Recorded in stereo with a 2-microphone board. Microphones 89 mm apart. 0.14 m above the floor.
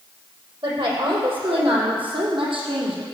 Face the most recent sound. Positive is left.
turn(degrees=-75)  # may be behind; listen again after turning